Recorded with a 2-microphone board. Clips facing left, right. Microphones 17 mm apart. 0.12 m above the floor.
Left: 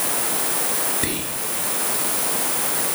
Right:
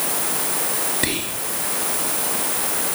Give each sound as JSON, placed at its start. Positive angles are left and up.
{"t": 1.0, "sound": "whispering", "side_deg": -20, "distance_m": 1.9}